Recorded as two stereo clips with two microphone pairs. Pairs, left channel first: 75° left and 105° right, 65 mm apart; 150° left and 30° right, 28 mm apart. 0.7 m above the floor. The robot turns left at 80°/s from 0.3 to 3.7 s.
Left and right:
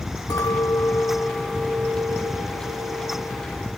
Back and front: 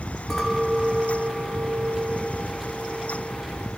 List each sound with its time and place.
0.3 s a clink: 80° left, 0.8 m; by 3.8 s 170° left, 0.8 m